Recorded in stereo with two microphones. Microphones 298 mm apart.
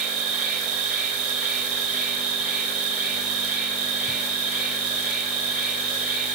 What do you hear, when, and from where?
0.0 s an insect: centre (ahead or behind), 2.5 m